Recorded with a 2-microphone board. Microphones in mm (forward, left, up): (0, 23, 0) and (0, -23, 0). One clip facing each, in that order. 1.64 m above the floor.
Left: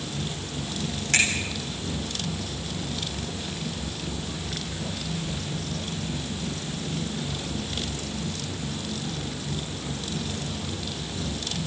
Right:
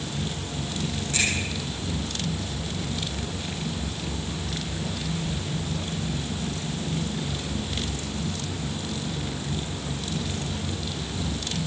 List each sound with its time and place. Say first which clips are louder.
1.1 s a finger snap: left 4 dB; 75° left (ahead or behind), 8 m